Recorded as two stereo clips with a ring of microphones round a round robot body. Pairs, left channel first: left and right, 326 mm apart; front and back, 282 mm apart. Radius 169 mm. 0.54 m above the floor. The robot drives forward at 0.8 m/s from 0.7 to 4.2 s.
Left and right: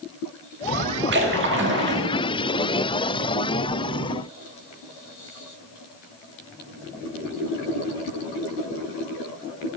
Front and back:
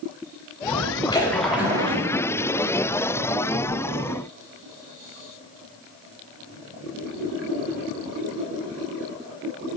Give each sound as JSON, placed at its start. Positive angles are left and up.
{"t": 1.1, "sound": "a splash", "azimuth_deg": -65, "distance_m": 1.2}